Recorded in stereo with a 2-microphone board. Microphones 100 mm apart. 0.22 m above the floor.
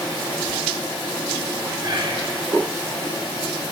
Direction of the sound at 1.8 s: 50° right (ahead or behind).